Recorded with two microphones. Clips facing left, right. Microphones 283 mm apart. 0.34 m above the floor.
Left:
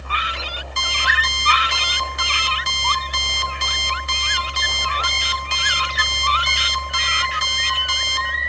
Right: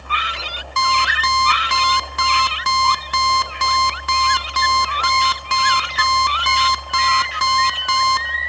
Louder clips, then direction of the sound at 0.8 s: Right 9 dB; 80° right.